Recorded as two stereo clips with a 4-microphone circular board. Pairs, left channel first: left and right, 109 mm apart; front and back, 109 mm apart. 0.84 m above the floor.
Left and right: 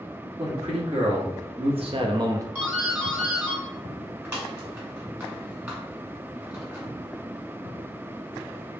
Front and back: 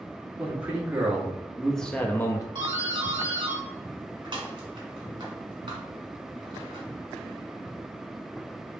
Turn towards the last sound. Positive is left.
turn(degrees=-155)